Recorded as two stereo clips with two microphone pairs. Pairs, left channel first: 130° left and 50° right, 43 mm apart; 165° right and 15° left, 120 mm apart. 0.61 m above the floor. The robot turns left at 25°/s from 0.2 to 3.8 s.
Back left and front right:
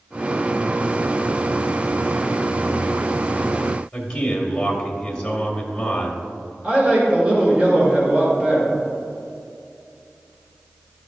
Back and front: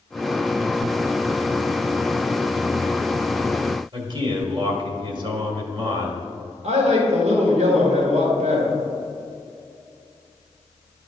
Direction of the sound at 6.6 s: 5° left.